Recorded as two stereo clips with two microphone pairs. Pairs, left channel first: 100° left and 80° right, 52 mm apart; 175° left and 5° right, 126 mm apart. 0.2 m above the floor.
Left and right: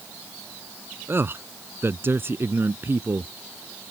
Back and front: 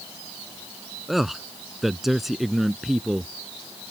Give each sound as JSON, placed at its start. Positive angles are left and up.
{"t": 1.1, "sound": "a man speaking", "azimuth_deg": -95}